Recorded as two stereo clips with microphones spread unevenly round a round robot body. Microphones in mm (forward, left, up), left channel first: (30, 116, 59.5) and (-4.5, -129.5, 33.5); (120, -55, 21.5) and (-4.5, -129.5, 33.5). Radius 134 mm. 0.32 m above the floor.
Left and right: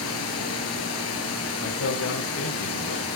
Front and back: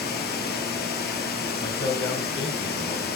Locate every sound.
0.0 s running water: 50° left, 1.7 m
1.6 s a man speaking: 75° left, 2 m